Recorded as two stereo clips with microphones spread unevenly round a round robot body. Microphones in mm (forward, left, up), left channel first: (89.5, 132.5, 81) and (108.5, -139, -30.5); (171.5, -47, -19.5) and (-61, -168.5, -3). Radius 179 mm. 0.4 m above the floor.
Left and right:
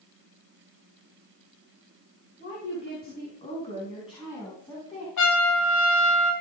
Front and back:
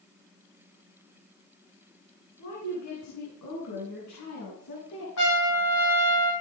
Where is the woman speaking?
40° left, 5.5 m; by 5.1 s straight ahead, 5 m.